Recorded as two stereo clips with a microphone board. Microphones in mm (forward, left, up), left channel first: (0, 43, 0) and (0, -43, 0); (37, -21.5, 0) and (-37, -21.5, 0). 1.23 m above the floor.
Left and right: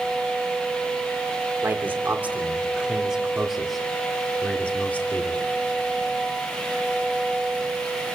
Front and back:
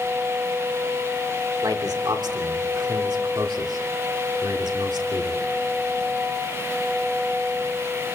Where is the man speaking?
155° right, 3.5 m; by 5.4 s 155° left, 3 m.